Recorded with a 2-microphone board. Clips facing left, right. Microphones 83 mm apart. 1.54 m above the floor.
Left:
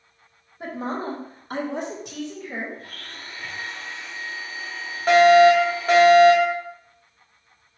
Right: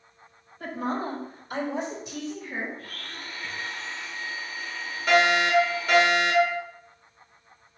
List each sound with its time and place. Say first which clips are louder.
0.6 s a woman speaking: left 1 dB; 20° left (ahead or behind), 1.4 m; by 2.7 s 75° left (ahead or behind), 2 m
2.8 s a blender: even; 30° left (ahead or behind), 2.5 m
5.1 s a fire alarm: left 9 dB; 40° left (ahead or behind), 1.7 m